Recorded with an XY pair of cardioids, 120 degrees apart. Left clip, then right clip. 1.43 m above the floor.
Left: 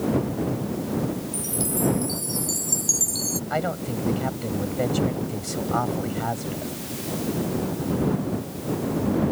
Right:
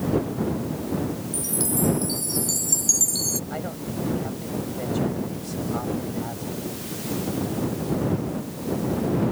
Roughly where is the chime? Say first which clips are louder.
Right 1 dB; ahead.